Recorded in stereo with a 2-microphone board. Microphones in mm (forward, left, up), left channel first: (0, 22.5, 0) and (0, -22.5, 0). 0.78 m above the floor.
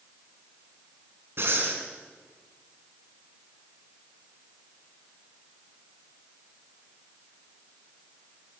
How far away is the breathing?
About 4 m.